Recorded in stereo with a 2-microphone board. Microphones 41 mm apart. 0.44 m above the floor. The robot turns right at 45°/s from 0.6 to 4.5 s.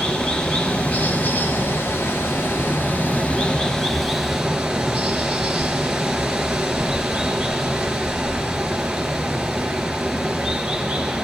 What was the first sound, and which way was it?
Running water, 20° left.